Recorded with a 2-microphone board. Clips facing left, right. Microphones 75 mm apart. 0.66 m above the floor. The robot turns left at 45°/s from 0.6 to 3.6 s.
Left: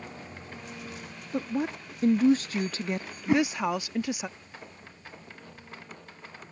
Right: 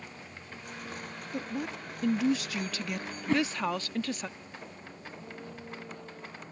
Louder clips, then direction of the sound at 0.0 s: Left 4 dB; 20° left (ahead or behind).